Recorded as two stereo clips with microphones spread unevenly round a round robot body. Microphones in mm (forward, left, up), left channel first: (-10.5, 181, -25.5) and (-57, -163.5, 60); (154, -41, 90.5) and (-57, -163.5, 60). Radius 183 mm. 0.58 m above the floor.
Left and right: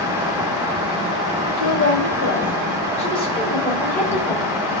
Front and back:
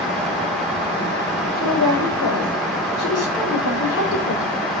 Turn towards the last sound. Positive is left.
turn(degrees=15)